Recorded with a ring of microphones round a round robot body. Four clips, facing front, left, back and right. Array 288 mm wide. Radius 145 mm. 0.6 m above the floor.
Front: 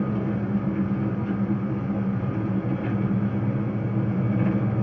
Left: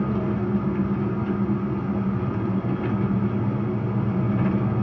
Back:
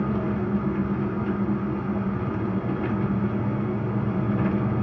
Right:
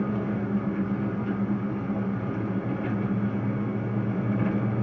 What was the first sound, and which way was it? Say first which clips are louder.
An engine running: left 3 dB, back 1 dB; 130° left.